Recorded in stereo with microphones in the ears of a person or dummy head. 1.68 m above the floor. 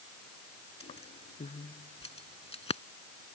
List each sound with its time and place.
0.8 s keys jangling: 30° left (ahead or behind)